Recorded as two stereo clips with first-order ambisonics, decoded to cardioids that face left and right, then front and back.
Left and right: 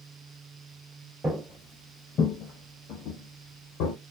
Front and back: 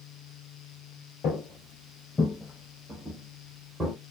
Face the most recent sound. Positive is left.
turn(degrees=100)